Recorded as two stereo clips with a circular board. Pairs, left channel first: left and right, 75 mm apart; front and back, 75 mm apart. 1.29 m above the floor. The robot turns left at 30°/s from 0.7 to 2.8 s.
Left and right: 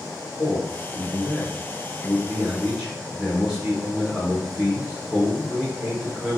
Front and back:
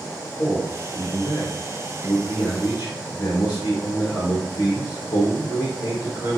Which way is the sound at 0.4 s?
45° left.